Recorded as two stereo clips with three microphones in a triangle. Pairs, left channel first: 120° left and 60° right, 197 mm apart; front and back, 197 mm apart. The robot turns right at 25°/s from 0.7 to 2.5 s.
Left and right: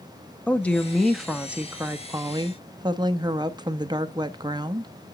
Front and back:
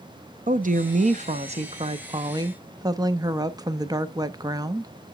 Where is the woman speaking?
160° right, 0.6 m; by 4.9 s 115° right, 0.6 m.